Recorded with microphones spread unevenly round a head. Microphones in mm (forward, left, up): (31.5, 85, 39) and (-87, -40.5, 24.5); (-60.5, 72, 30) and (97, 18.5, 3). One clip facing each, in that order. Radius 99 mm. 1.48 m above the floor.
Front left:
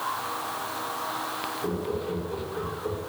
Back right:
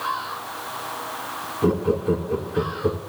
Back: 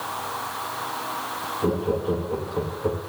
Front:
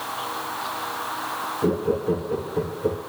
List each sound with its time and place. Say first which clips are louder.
1.6 s laughter: back right 10 dB, front 2 dB; 95° right, 2.5 m